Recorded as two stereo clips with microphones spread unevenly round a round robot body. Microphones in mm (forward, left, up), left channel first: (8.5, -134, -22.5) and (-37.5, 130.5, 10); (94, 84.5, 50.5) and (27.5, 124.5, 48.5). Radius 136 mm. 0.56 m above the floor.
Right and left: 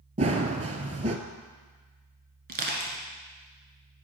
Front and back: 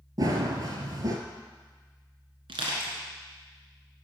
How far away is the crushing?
About 1.6 m.